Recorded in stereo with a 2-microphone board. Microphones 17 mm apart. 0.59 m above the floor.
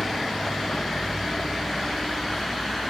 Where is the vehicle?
70° left (ahead or behind); by 2.9 s 75° left (ahead or behind).